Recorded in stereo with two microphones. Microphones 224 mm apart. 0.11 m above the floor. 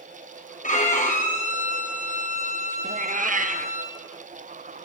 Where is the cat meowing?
40° right (ahead or behind), 1.2 m.